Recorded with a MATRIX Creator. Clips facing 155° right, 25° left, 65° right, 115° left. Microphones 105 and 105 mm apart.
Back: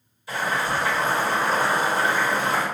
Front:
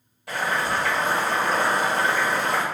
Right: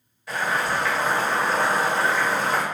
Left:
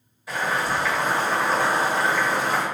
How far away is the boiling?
About 2.0 m.